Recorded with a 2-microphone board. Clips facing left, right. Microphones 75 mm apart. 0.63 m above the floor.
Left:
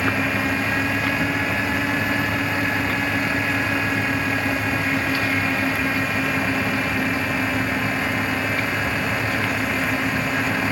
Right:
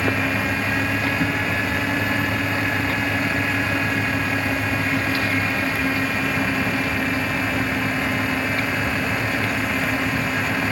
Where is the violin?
No violin in this recording.